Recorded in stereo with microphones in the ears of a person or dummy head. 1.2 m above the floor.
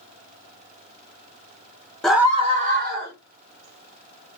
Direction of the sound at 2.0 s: Centre (ahead or behind).